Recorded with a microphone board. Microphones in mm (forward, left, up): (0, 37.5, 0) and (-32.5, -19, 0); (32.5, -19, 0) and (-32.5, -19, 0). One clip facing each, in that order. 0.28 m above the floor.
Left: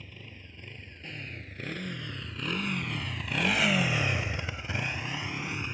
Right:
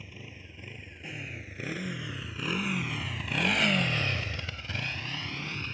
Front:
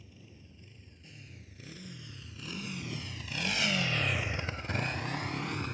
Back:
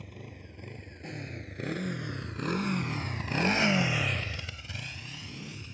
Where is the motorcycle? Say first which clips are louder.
Right 1 dB, back 9 dB; 160° left; by 5.8 s 15° right.